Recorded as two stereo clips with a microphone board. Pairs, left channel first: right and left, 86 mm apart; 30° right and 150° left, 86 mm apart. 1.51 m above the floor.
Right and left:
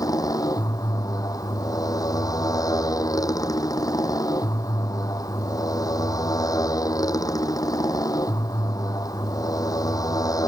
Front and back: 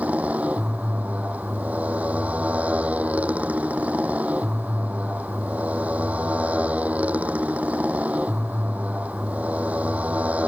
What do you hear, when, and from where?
0.0 s a motorcycle: 135° right